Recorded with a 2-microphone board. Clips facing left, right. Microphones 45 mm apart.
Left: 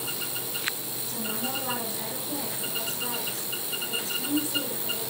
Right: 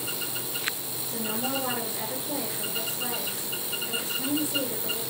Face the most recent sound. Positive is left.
turn(degrees=-30)  # may be behind; listen again after turning